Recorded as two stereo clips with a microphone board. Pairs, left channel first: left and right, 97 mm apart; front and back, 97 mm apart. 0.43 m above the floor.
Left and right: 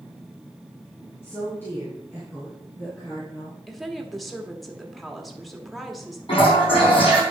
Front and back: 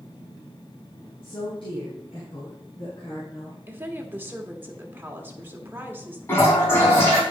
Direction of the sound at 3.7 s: 175° left.